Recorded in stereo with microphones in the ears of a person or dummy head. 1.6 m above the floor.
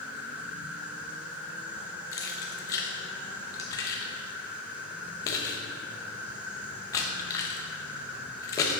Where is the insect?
10° right (ahead or behind), 1.0 m.